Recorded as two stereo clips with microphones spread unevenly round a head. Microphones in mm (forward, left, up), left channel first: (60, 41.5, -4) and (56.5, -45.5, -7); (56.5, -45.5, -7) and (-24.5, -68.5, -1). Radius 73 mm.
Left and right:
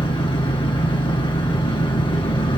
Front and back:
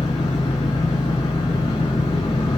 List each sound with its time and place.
0.0 s an engine running: 80° left, 3 m